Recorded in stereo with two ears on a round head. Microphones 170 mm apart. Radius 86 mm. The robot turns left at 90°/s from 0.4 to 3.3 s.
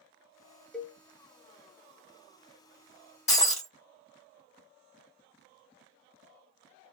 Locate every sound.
0.7 s a cowbell: 5° left (ahead or behind), 0.6 m; by 1.0 s 10° right (ahead or behind), 0.6 m
3.3 s breaking glass: 35° left (ahead or behind), 1.4 m